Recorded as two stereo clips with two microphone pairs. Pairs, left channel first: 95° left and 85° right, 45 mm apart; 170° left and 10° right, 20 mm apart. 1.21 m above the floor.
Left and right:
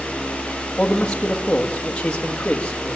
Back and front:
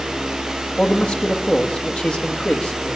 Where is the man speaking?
160° left, 1.5 m.